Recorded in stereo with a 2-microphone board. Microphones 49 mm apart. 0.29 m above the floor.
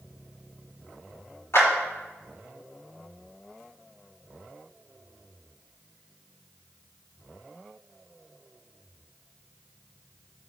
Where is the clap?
55° left (ahead or behind), 4.5 m.